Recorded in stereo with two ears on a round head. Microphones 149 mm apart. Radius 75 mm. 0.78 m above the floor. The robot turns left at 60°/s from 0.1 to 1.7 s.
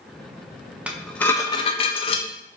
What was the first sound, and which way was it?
Dishes clattering, 170° right.